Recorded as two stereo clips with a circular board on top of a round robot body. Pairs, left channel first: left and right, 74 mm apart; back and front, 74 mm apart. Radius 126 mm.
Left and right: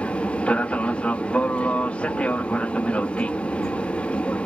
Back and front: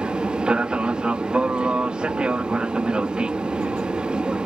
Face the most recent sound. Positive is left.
turn(degrees=55)